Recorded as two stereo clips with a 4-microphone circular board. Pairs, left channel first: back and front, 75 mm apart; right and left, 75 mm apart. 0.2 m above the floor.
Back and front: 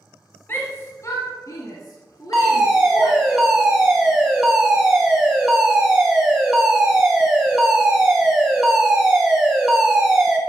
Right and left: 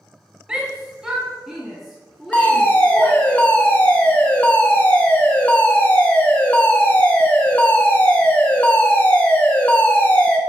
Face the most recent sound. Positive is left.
turn(degrees=-70)